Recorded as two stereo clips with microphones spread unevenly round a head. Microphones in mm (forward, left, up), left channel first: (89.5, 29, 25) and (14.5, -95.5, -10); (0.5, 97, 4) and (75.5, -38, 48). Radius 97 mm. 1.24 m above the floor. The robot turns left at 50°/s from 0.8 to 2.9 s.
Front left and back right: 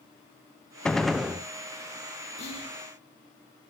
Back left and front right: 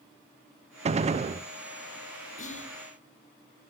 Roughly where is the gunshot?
Ahead right.